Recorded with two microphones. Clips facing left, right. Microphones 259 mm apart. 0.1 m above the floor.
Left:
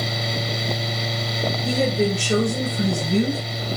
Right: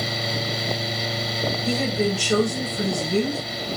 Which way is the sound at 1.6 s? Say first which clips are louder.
Left 3 dB; 30° left (ahead or behind).